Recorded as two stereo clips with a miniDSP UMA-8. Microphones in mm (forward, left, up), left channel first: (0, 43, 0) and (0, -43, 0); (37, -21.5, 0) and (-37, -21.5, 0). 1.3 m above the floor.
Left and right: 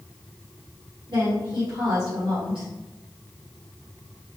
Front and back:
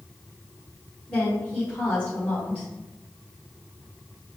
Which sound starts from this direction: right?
A woman speaking, at 1.1 s.